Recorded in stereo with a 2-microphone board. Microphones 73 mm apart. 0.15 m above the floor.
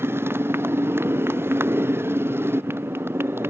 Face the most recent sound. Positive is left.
turn(degrees=-30)  # may be behind; listen again after turning